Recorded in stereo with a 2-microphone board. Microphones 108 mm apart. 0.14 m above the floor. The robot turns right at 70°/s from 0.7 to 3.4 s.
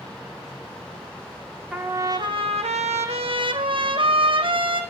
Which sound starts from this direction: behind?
A trumpet, at 1.7 s.